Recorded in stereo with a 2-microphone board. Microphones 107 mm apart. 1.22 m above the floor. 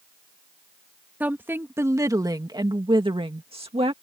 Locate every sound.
1.2 s a woman speaking: 15° right (ahead or behind); by 3.9 s 75° right (ahead or behind)